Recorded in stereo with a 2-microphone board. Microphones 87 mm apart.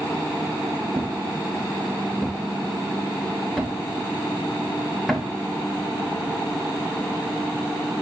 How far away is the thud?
About 2.5 m.